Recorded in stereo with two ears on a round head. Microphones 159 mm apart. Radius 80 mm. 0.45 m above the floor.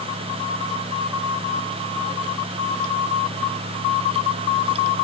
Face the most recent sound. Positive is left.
No sound to turn to.